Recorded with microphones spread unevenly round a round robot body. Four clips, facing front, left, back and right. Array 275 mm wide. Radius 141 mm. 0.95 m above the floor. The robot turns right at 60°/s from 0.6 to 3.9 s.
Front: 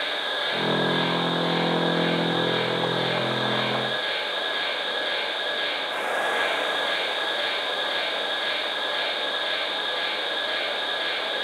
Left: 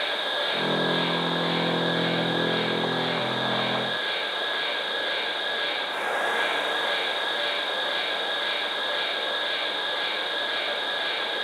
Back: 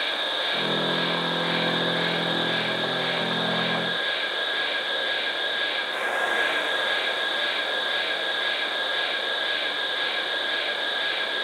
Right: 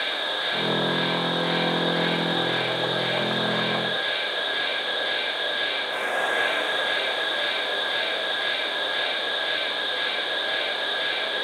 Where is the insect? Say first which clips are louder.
Left 1 dB, even; 115° left, 1.1 m; by 11.4 s 45° right, 1.1 m.